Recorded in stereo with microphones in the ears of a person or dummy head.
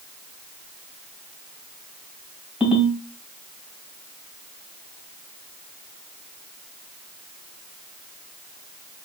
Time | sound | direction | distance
2.6 | a ringtone | 10° right (ahead or behind) | 2.5 m